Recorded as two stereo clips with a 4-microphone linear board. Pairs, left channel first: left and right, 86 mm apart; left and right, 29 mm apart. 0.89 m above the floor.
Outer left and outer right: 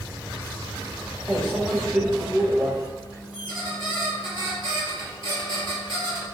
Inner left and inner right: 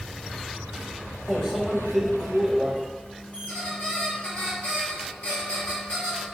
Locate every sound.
1.3 s a microwave: centre (ahead or behind), 0.9 m
3.3 s a squeak: 60° left (ahead or behind), 1.3 m